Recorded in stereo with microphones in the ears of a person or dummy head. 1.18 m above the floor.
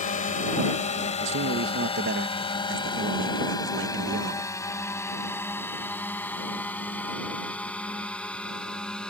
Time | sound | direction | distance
0.0 | a drone | 40° left (ahead or behind) | ?
1.2 | a man speaking | 60° right (ahead or behind) | ?